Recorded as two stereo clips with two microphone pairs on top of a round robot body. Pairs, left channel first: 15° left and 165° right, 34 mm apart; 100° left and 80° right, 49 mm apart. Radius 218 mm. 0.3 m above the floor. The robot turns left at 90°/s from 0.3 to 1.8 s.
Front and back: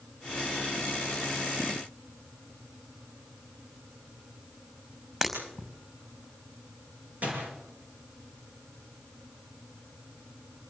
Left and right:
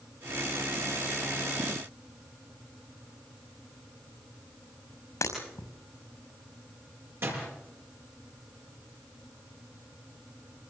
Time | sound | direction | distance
5.2 | breaking glass | 120° left | 5.5 m
7.2 | a door slam | 120° right | 7.5 m